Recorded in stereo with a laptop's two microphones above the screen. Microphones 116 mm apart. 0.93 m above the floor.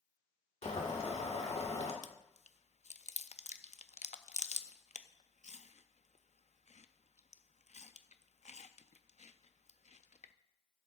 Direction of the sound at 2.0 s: 80° left.